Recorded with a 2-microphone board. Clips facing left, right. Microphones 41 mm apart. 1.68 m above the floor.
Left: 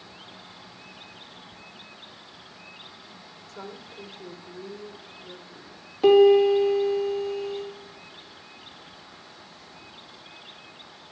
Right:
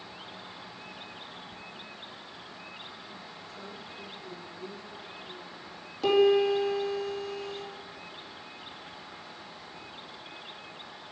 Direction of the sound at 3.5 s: 60° left (ahead or behind).